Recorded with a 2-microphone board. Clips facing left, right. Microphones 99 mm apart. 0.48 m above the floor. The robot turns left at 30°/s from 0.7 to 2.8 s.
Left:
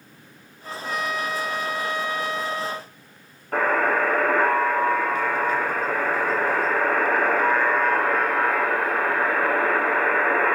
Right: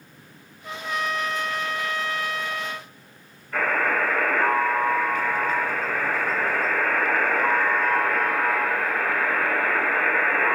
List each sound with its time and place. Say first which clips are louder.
0.6 s a trumpet: even; 5° right (ahead or behind), 0.8 m; by 2.9 s 25° left (ahead or behind), 0.8 m
3.5 s a buzzer: left 3 dB; 65° left (ahead or behind), 6 m